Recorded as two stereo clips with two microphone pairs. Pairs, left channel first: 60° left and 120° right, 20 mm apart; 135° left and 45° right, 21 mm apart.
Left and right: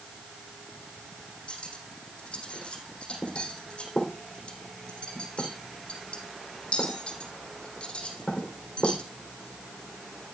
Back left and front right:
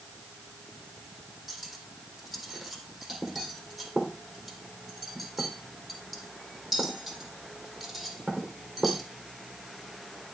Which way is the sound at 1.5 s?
30° left.